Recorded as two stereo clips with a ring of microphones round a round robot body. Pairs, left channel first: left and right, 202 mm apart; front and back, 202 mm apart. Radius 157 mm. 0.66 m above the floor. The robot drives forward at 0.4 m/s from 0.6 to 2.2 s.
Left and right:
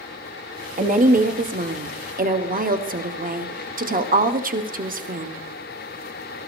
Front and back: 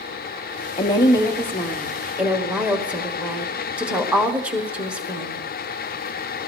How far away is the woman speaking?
About 1.2 m.